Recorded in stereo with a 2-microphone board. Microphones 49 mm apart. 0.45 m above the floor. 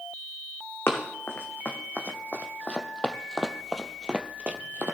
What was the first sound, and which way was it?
Running footsteps, 50° left (ahead or behind).